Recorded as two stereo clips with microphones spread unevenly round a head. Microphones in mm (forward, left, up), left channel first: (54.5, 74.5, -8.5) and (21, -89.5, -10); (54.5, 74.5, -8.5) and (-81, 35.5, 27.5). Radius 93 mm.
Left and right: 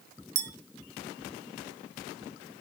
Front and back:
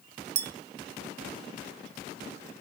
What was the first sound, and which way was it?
A clink, 140° right.